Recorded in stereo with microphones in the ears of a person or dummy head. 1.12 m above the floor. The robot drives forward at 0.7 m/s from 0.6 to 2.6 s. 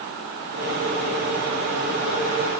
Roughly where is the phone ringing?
No phone ringing in this recording.